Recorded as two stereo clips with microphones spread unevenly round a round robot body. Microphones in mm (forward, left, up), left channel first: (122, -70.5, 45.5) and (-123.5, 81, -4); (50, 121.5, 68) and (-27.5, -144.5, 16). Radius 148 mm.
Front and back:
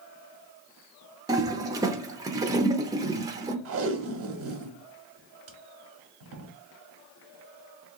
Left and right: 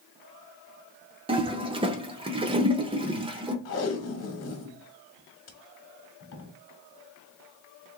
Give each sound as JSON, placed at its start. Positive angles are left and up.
{"t": 1.3, "sound": "a toilet flushing", "azimuth_deg": -150, "distance_m": 0.6}
{"t": 3.6, "sound": "tape being pulled", "azimuth_deg": 125, "distance_m": 1.1}